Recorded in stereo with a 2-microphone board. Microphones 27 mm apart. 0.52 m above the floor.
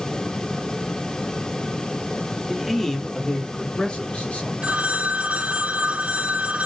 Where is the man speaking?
5° right (ahead or behind), 0.8 m; by 4.5 s 55° left (ahead or behind), 1.4 m.